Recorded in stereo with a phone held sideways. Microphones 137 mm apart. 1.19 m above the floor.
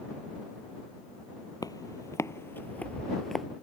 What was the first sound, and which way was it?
Footsteps, 30° left (ahead or behind).